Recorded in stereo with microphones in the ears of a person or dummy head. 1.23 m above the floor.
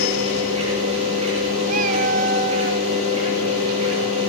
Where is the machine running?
45° right (ahead or behind), 6.5 m.